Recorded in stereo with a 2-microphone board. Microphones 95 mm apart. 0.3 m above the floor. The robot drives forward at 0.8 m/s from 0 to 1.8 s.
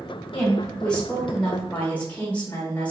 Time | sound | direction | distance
0.3 | a woman speaking | 10° left (ahead or behind) | 2 m